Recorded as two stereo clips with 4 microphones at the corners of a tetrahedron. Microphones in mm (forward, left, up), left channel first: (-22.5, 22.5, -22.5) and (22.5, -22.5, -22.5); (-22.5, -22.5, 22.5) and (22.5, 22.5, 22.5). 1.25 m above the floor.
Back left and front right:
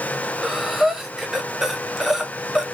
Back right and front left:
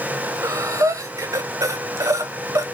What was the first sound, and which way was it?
Breathing, 40° left.